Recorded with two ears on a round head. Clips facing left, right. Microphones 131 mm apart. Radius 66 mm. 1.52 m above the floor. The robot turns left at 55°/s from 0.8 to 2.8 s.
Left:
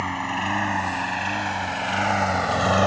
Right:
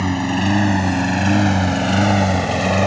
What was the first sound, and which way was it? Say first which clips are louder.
A lawn mower: right 8 dB; 45° right (ahead or behind).